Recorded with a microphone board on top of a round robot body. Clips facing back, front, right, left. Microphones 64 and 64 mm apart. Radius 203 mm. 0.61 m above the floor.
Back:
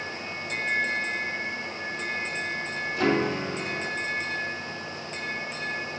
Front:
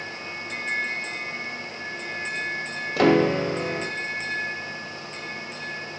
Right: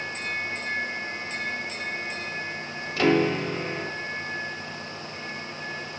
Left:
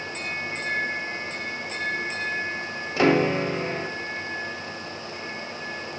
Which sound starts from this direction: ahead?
A piano, at 3.0 s.